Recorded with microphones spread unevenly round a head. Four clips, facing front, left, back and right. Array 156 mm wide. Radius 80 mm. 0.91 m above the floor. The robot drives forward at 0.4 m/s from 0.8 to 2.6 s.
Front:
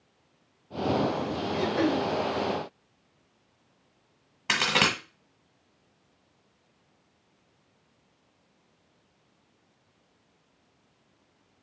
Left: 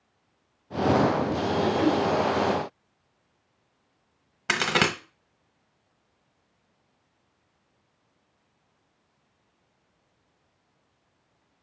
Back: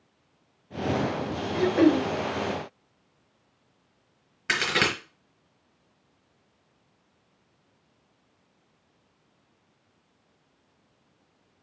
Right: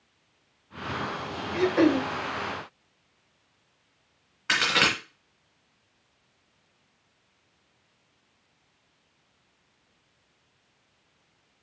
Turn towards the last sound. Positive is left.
turn(degrees=85)